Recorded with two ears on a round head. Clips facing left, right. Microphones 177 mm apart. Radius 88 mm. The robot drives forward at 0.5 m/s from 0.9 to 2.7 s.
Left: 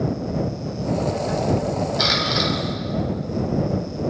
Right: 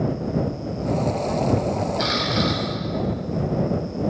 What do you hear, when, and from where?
2.0 s a camera shutter: 65° left (ahead or behind), 7.5 m